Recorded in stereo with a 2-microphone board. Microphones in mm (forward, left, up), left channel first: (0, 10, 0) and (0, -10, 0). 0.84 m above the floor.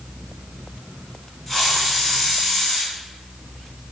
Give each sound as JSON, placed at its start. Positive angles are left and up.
{"t": 1.5, "sound": "a hiss", "side_deg": -5, "distance_m": 2.5}